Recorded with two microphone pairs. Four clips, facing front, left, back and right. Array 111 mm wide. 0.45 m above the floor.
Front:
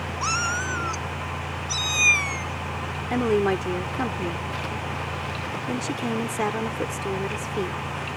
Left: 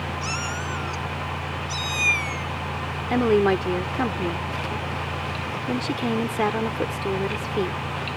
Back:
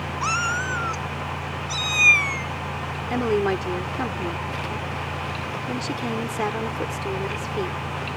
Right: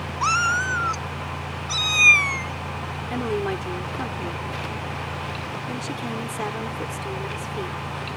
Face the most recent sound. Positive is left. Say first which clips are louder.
# left 7 dB, even
turn(degrees=85)